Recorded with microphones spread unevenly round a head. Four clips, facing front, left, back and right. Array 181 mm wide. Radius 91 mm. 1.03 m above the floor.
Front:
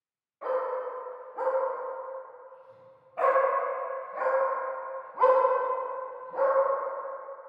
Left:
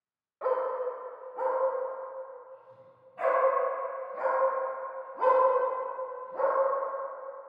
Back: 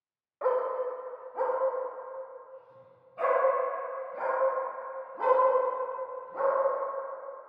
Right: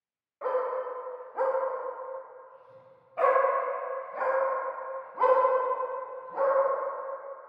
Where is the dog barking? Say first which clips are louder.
Even, back 2 dB; straight behind, 1.2 m; by 6.5 s 50° right, 4 m.